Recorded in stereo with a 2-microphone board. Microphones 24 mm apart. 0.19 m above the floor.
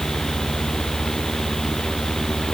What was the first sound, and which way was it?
Only background noise.